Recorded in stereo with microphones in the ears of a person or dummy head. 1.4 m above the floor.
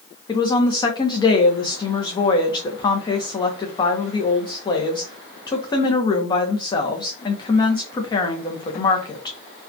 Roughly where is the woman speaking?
Left.